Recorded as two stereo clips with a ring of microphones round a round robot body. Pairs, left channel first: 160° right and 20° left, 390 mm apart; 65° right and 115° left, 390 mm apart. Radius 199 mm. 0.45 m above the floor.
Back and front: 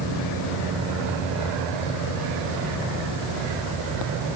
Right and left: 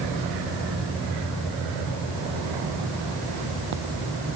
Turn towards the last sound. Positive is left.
No sound to turn to.